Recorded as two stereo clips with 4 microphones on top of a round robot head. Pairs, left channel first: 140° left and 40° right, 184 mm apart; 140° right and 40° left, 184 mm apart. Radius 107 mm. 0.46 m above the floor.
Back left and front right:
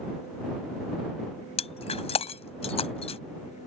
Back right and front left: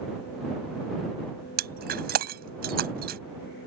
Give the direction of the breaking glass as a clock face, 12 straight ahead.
9 o'clock.